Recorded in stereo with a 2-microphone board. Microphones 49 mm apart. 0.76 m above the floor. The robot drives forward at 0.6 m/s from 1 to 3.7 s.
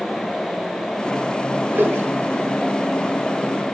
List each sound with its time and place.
1.7 s a whoosh: 45° right (ahead or behind), 1.9 m; by 2.5 s 55° right (ahead or behind), 1.6 m